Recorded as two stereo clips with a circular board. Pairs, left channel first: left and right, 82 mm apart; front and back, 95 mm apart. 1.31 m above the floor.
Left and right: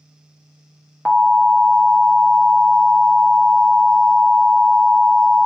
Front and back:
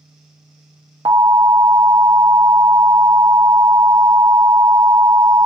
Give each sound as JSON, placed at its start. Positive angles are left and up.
{"t": 1.1, "sound": "an alarm", "azimuth_deg": 160, "distance_m": 0.7}